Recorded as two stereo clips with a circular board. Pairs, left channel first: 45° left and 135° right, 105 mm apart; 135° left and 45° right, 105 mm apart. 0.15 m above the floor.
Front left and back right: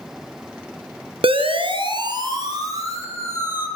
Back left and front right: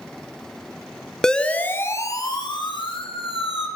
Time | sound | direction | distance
1.2 | a siren | 140° right | 2.5 m